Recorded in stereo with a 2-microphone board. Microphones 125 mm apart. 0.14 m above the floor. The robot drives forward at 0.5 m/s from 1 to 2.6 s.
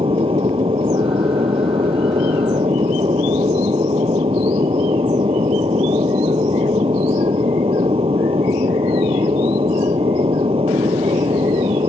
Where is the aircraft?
45° right (ahead or behind).